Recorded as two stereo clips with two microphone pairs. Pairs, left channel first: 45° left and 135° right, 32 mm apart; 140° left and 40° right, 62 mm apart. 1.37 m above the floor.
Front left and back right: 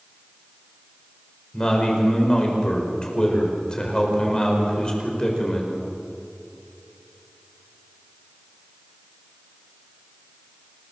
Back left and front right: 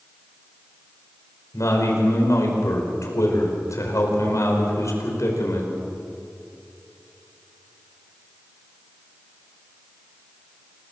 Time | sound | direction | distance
1.5 | a man speaking | 110° left | 5.5 m